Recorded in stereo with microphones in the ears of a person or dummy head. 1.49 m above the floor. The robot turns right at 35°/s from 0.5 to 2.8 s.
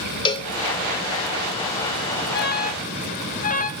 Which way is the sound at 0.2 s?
25° left (ahead or behind).